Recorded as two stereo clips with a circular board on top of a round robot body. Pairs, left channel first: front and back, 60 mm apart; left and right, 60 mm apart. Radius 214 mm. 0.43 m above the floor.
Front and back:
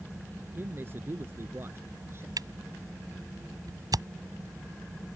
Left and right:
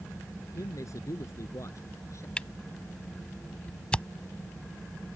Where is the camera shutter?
165° left.